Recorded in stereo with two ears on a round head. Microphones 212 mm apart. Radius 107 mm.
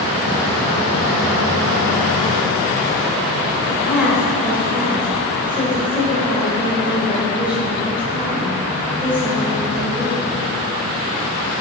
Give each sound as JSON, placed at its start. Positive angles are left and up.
{"t": 3.7, "sound": "a woman speaking", "side_deg": -5, "distance_m": 3.5}